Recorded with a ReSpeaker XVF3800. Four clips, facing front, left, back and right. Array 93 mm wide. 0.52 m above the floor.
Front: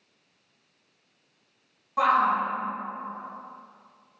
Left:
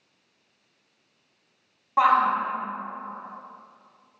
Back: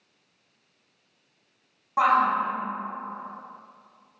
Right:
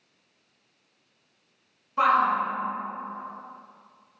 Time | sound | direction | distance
2.0 | a shout | 110° left | 3 m